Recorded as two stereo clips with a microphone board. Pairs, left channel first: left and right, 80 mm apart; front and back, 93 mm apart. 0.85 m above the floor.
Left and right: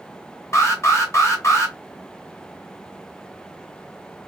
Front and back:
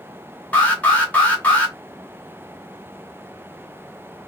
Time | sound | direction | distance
0.5 | an alarm | 65° left | 0.9 m